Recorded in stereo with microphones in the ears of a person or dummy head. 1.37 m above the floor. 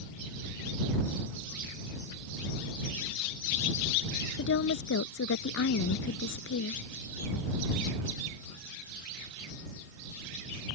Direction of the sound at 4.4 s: 75° left (ahead or behind).